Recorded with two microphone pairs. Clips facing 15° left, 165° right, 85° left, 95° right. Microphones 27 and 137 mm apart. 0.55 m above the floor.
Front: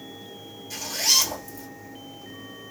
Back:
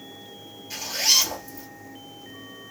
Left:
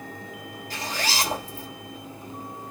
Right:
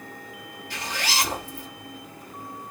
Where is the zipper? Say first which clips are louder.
Back 1 dB, even; 130° left, 2 m.